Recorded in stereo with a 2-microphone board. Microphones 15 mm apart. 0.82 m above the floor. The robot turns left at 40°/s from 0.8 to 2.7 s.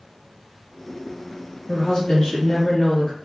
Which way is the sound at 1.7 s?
90° left.